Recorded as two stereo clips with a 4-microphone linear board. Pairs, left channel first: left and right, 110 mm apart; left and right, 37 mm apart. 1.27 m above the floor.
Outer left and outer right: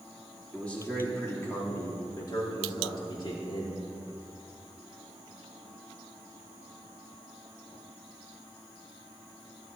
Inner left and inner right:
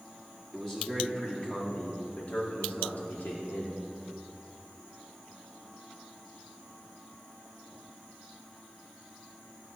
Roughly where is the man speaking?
Centre.